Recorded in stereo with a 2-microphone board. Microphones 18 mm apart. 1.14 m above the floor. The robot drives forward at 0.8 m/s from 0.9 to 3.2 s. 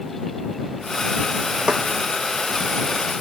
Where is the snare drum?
60° right (ahead or behind).